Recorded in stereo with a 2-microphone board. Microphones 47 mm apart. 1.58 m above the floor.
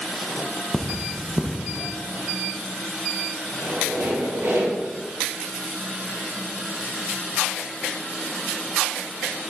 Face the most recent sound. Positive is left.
turn(degrees=-75)  # may be behind; listen again after turning